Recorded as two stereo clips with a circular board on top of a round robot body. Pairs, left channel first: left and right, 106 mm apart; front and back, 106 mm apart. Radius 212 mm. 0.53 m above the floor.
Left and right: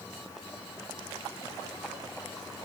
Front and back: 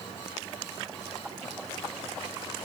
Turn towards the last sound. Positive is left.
No sound to turn to.